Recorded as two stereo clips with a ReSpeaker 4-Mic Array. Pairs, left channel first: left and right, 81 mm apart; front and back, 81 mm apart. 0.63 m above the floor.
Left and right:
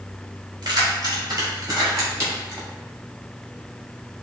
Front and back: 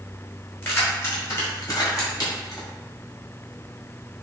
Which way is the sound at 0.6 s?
65° right.